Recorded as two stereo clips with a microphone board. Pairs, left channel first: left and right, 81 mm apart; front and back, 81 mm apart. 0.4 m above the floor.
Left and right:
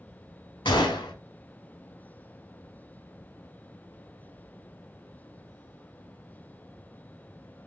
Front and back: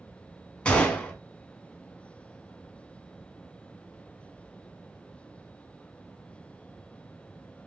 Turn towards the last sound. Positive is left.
turn(degrees=75)